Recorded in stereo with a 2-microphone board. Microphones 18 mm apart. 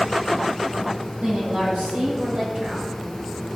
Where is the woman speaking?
65° right (ahead or behind), 5 m.